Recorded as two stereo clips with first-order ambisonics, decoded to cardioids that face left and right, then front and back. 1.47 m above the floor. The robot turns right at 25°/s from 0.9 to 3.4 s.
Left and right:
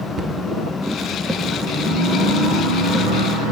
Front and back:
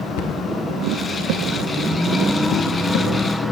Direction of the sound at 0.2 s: 20° right.